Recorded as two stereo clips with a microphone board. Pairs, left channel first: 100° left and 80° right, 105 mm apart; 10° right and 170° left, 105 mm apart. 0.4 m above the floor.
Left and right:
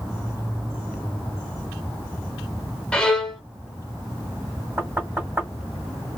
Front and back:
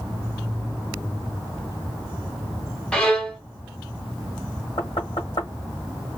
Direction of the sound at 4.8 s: 15° right.